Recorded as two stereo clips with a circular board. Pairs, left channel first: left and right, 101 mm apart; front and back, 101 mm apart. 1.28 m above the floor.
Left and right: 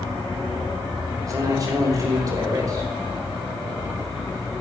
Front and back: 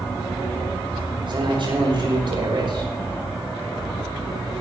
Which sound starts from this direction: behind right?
A man speaking, at 1.3 s.